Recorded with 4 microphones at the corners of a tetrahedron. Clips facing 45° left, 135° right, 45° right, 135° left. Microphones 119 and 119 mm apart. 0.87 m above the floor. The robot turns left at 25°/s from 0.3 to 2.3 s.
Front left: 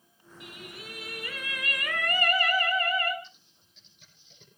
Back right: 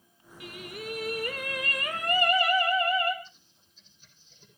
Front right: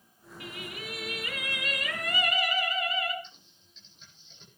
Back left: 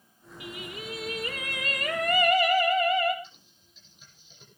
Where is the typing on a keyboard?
50° left, 10 m.